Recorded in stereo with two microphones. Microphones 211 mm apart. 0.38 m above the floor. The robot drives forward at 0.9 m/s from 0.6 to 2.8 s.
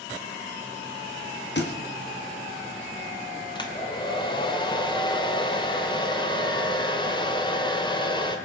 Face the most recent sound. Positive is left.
turn(degrees=20)  # may be behind; listen again after turning